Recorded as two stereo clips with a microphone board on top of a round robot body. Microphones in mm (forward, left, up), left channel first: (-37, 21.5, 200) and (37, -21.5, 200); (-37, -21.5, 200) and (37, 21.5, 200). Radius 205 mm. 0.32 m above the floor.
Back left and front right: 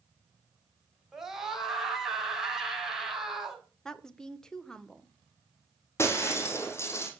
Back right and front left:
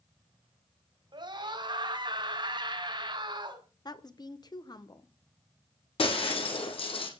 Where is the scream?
55° left, 4.5 m.